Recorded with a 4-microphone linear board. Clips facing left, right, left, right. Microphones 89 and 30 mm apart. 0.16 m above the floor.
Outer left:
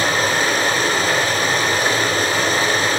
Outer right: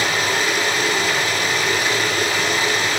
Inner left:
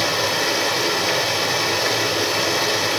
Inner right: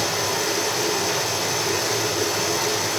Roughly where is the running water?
Left.